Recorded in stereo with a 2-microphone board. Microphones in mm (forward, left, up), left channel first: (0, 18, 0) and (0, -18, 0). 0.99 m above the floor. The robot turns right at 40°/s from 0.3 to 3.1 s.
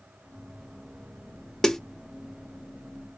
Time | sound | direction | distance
1.6 | a snare drum | 10° left (ahead or behind) | 0.9 m